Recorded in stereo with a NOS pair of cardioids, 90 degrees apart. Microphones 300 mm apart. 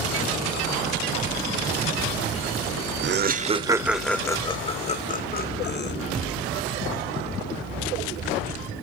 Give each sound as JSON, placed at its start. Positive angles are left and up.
{"t": 3.0, "sound": "laughter", "azimuth_deg": -40, "distance_m": 0.7}